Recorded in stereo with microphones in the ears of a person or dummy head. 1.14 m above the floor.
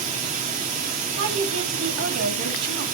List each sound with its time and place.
0.0 s running water: 45° right (ahead or behind), 1.4 m
1.1 s a woman speaking: 75° right (ahead or behind), 2.5 m